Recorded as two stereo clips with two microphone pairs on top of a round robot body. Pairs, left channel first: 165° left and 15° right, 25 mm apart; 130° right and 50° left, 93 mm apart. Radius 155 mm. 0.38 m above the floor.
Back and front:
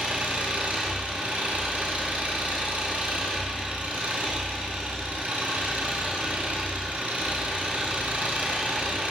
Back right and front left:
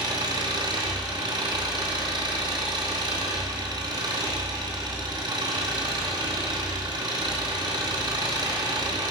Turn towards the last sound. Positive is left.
turn(degrees=5)